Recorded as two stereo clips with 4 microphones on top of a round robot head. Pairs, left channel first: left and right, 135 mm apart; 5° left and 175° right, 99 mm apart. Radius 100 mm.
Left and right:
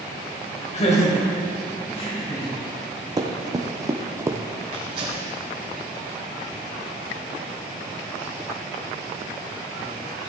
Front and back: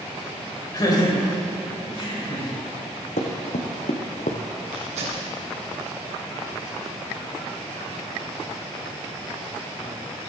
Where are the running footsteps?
25° right, 1.7 m; by 4.4 s 20° right, 0.9 m.